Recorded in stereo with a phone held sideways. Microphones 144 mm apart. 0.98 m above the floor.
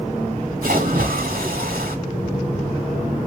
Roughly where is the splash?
Right.